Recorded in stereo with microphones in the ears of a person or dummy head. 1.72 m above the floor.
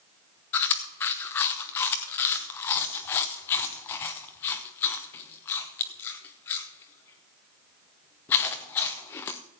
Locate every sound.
0.5 s chewing: 10° left (ahead or behind), 0.6 m